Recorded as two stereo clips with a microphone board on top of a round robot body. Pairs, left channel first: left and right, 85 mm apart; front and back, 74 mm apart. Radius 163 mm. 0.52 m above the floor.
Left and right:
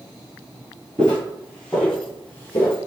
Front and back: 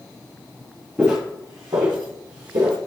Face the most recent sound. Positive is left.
turn(degrees=155)